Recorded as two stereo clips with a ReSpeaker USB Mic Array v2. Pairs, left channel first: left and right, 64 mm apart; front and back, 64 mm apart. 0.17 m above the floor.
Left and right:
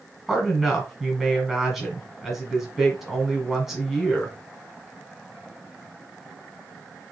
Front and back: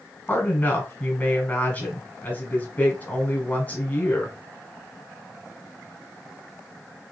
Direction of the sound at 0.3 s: 10° right.